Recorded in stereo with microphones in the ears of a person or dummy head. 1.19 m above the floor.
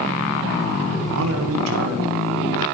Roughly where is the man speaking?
Right.